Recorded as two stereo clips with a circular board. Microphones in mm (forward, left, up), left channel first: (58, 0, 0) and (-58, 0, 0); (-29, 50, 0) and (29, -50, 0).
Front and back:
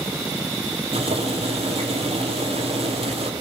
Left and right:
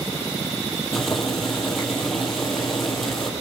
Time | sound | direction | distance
0.9 | boiling | 150° right | 3 m